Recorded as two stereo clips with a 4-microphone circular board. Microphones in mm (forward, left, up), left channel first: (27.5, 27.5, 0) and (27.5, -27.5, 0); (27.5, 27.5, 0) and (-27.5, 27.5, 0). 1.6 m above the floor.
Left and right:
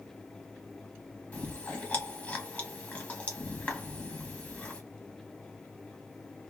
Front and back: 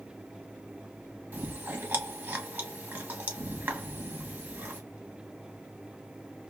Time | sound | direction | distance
1.3 | chewing | 135° left | 1.1 m